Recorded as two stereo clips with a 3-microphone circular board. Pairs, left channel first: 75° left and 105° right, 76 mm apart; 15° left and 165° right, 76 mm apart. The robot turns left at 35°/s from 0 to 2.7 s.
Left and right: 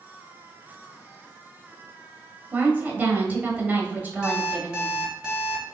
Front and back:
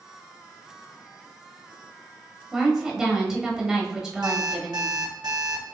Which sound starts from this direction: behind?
An alarm clock, at 4.2 s.